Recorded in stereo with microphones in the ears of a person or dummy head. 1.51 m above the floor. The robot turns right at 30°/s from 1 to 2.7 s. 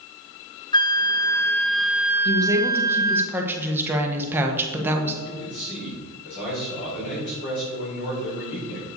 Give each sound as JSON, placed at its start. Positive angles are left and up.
{"t": 0.7, "sound": "a flute", "azimuth_deg": 155, "distance_m": 0.5}
{"t": 2.2, "sound": "a woman speaking", "side_deg": -25, "distance_m": 1.3}
{"t": 5.2, "sound": "a man speaking", "side_deg": 55, "distance_m": 4.0}